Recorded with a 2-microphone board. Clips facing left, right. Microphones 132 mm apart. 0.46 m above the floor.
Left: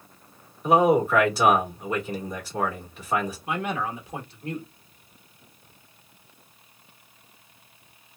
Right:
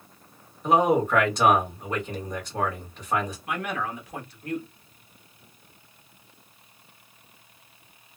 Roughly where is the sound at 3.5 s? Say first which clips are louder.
Left 2 dB; left.